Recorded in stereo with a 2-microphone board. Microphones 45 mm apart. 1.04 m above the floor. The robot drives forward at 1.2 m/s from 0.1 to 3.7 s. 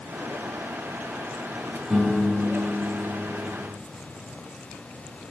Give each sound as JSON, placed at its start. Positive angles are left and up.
{"t": 1.9, "sound": "a piano", "side_deg": -25, "distance_m": 5.0}